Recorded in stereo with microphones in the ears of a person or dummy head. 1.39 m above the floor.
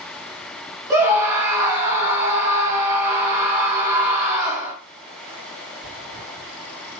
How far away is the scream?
About 3 m.